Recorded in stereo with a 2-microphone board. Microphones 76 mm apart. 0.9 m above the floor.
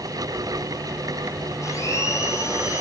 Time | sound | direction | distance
1.6 | a blender | 40° left (ahead or behind) | 7.5 m